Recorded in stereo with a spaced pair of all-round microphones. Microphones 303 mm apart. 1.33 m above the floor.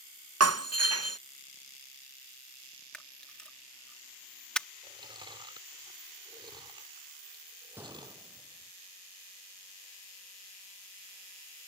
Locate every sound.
0.4 s breaking glass: 50° right (ahead or behind)
2.9 s a camera shutter: 5° left (ahead or behind)
4.8 s chewing: 15° right (ahead or behind)
7.8 s a gunshot: 5° right (ahead or behind)